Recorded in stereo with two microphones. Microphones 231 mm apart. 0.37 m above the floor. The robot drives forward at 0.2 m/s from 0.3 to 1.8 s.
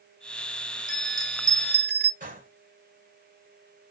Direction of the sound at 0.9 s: 55° right (ahead or behind).